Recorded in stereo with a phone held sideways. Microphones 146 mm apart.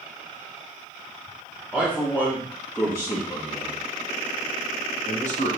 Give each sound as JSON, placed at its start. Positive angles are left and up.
{"t": 1.7, "sound": "a man speaking", "side_deg": 5, "distance_m": 2.5}